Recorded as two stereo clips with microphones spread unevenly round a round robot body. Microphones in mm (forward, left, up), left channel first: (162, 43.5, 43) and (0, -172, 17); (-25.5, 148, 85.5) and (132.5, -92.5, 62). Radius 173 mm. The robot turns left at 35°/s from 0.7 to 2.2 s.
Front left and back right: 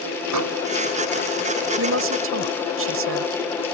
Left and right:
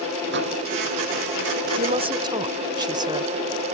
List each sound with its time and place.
0.3 s a microwave: 115° right
1.8 s a woman speaking: 110° right; by 3.3 s 125° right